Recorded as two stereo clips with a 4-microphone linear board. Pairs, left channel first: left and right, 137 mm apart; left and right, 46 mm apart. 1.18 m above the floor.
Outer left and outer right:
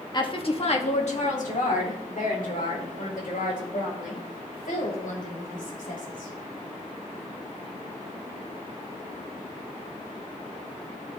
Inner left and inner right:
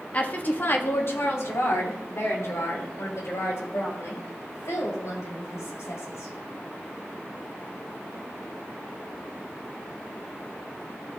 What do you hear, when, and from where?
0.1 s a woman speaking: 35° left (ahead or behind), 1.6 m; by 6.3 s 90° left, 7.5 m